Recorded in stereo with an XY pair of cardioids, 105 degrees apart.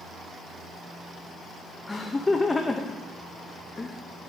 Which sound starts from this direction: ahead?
Laughter, at 1.9 s.